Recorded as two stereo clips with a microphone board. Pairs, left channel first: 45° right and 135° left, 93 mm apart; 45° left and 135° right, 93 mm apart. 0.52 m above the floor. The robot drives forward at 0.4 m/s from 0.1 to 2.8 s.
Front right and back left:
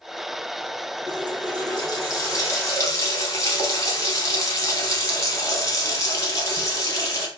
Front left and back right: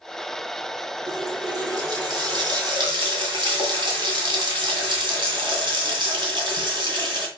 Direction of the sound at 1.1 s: 85° right.